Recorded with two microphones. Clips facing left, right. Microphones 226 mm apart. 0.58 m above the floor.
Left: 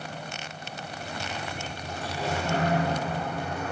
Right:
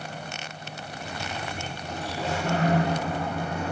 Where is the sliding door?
30° right (ahead or behind), 7 m.